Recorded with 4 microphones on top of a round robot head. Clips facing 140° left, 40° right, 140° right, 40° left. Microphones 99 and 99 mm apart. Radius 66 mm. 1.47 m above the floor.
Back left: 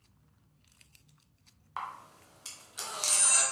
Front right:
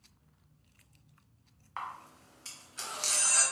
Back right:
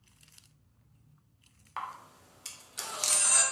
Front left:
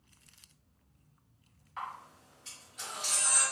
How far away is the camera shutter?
About 0.9 m.